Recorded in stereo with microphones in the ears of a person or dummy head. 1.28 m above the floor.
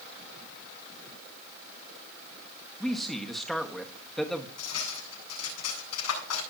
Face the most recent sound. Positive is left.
turn(degrees=80)